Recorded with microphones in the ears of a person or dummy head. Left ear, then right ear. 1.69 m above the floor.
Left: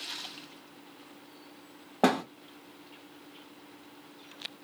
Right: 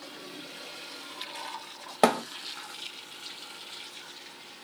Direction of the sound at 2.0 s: 50° right (ahead or behind).